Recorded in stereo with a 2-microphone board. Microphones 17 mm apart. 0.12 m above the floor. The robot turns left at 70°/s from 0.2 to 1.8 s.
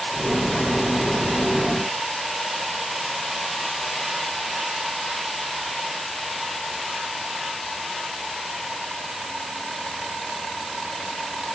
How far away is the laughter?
No laughter in this recording.